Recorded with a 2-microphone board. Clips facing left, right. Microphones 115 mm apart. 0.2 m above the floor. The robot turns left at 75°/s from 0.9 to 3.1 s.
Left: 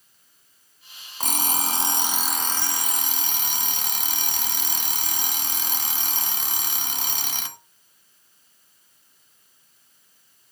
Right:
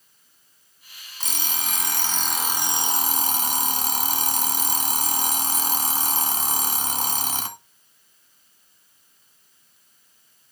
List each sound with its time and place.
1.2 s an alarm clock: 85° left, 0.7 m; by 7.6 s 60° right, 0.7 m